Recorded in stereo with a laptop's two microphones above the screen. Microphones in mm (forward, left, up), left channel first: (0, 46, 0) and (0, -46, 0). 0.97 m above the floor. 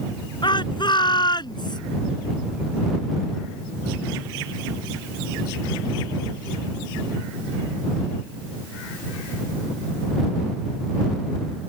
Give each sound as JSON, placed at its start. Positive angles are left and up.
{"t": 0.4, "sound": "a shout", "side_deg": 55}